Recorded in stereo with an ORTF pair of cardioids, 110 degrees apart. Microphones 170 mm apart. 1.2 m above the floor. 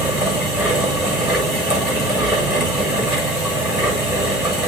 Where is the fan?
5° right, 7 m.